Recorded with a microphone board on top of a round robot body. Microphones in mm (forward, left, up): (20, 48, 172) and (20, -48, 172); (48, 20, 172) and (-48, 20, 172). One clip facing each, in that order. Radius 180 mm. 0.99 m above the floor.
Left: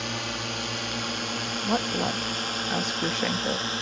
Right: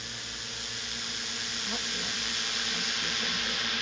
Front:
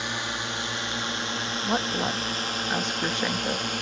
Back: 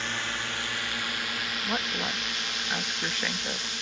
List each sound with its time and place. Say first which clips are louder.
0.0 s a drone: left 12 dB, front 2 dB; 75° left; by 3.8 s 35° left
1.6 s a woman speaking: left 13 dB, front 6 dB; 65° left